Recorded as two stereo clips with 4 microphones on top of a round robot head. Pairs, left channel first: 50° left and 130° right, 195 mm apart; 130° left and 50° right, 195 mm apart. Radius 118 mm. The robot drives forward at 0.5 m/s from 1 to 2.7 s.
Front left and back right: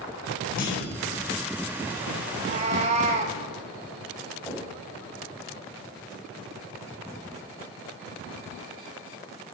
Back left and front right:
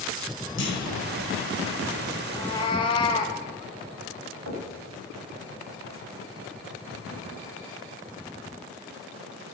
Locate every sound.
0.6 s a clunk: 100° left, 4 m
2.3 s a cat meowing: 170° right, 0.8 m; by 3.4 s 175° right, 0.9 m
4.5 s knocking: 125° left, 4 m